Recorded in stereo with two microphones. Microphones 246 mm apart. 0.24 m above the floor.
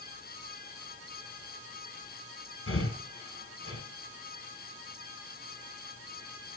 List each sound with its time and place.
2.7 s breathing: 60° left (ahead or behind), 1.7 m